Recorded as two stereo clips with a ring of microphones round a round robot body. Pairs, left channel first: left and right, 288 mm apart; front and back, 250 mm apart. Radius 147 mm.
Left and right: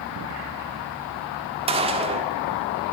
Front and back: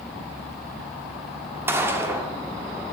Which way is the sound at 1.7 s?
115° right.